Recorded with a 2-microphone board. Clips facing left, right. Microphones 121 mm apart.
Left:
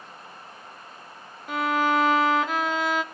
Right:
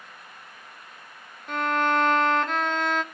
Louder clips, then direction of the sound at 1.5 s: Left 1 dB; 5° left (ahead or behind).